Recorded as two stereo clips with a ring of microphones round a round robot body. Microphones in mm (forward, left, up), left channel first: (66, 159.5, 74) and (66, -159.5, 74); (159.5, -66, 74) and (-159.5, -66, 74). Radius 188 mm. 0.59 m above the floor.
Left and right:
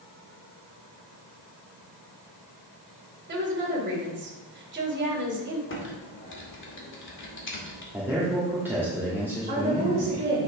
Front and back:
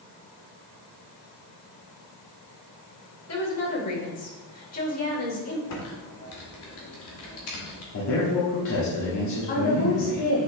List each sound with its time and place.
3.3 s a woman speaking: 35° right, 3 m
5.7 s typing on a keyboard: 40° left, 2 m
7.9 s a man speaking: 10° right, 2.0 m
9.5 s a woman speaking: 25° right, 3 m